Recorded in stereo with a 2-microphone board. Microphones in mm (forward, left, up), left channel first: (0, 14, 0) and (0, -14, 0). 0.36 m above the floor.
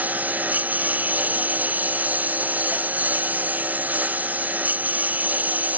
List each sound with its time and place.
0.0 s a lawn mower: 90° right; by 5.8 s 85° right